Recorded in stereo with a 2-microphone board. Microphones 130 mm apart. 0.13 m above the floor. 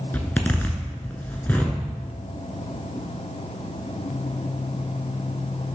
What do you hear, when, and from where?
0.1 s a zipper: 15° left (ahead or behind), 0.9 m